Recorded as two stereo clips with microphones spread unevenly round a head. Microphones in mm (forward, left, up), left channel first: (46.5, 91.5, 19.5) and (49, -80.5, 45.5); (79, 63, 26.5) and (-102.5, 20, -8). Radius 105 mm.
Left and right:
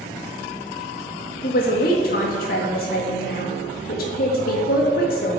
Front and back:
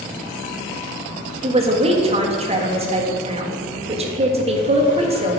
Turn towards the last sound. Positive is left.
turn(degrees=135)